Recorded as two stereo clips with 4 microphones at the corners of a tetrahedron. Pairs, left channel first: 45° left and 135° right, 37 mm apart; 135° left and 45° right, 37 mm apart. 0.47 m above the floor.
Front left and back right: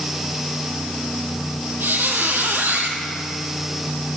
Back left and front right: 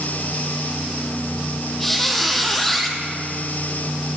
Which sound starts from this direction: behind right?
A squeak, at 1.8 s.